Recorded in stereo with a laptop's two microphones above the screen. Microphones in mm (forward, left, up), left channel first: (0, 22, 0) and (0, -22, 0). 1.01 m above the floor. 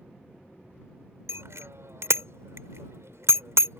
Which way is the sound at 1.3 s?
90° right.